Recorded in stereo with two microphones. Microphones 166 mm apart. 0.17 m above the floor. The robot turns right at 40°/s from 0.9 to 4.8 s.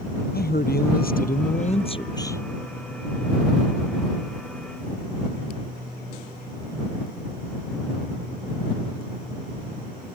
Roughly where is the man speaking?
Left.